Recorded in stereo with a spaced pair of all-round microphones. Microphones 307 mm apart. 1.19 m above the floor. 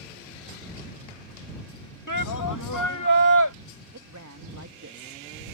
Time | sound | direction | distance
2.1 | a shout | 75° left (ahead or behind) | ?
3.9 | a man speaking | 65° right (ahead or behind) | ?